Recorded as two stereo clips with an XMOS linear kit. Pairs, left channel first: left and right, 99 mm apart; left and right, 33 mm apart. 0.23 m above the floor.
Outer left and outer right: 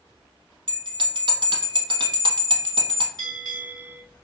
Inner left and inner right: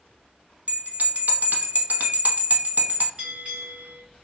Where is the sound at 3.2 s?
40° right (ahead or behind), 1.8 m.